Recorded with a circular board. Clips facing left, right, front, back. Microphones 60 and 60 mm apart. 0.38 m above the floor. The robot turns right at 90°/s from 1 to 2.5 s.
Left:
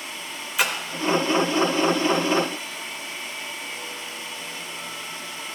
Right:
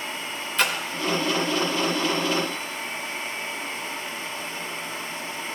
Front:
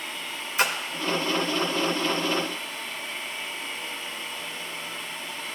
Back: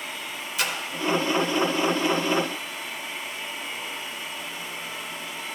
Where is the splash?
20° left, 0.8 m.